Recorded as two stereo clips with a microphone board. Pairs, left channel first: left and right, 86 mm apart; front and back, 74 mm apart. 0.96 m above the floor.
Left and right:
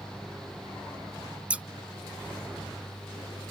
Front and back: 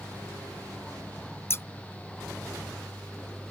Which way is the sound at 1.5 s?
25° right.